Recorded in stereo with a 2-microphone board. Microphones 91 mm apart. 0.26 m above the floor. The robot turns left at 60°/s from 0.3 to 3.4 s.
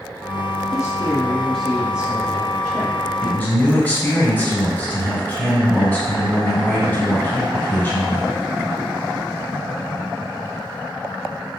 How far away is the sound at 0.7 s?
About 1.3 m.